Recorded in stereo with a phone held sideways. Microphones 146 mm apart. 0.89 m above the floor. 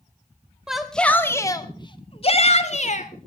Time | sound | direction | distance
0.7 | a shout | 5° right (ahead or behind) | 1.6 m